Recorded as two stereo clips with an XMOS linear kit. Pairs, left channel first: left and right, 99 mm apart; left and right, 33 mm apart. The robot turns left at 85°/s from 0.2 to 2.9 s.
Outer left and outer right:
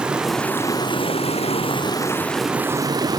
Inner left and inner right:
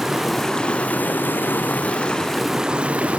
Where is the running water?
170° right, 2 m; by 3.2 s 40° right, 2 m.